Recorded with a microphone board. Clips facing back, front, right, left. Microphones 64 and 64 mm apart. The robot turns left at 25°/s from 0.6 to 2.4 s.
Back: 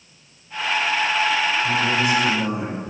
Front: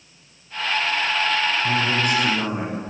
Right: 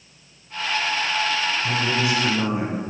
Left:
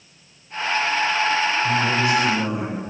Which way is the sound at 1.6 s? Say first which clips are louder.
Back 1 dB, left 3 dB; 15° right.